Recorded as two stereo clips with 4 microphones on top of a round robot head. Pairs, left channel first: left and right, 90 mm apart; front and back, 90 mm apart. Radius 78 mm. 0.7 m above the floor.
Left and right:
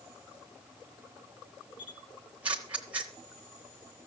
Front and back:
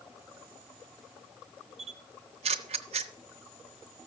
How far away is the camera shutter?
About 0.8 m.